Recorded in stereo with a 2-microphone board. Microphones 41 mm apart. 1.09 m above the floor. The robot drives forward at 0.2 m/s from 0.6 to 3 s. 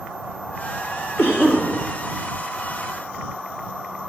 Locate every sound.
1.2 s a cough: 60° left (ahead or behind), 1.3 m